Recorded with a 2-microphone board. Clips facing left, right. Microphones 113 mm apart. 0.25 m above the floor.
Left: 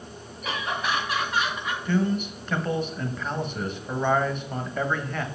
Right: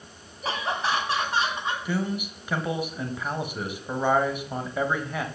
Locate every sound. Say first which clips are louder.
0.4 s laughter: right 1 dB; 35° right (ahead or behind), 1.6 m; by 1.8 s 30° right (ahead or behind), 1.9 m
1.9 s a man speaking: left 8 dB; 10° right (ahead or behind), 1.0 m